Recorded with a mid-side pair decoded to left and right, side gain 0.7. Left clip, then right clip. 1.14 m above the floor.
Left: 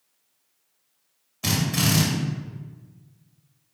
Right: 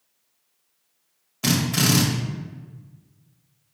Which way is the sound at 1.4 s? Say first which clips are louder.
Right 2 dB; 20° right.